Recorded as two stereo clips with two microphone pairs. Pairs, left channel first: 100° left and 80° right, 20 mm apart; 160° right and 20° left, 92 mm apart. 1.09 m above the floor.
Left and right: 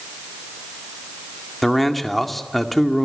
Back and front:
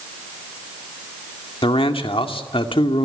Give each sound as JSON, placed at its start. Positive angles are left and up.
{"t": 1.6, "sound": "a man speaking", "azimuth_deg": -175, "distance_m": 2.0}